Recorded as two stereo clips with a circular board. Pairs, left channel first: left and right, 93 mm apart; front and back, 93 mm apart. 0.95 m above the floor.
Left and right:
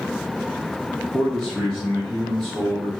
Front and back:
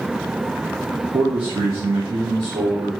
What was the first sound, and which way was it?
A man speaking, 175° right.